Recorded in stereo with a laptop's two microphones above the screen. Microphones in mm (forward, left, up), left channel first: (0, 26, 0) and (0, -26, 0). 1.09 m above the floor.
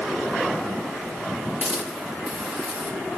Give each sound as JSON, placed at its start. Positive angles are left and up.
{"t": 1.6, "sound": "a hiss", "side_deg": -30, "distance_m": 9.5}